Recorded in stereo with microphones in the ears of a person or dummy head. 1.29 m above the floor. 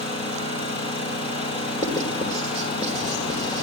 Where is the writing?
25° left (ahead or behind), 3.5 m.